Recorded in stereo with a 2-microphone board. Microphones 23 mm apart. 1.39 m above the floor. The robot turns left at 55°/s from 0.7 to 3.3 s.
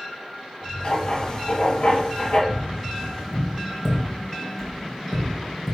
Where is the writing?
135° left, 3 m; by 2.4 s 50° left, 3 m.